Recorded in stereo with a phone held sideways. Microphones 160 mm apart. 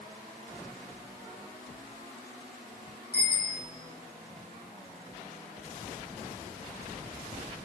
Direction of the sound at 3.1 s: 85° left.